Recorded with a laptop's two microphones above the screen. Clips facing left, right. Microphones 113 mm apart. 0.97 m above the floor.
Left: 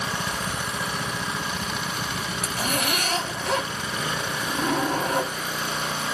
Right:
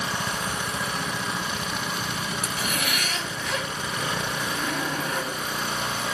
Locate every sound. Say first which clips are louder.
2.4 s a zipper: left 6 dB; 40° left (ahead or behind), 4 m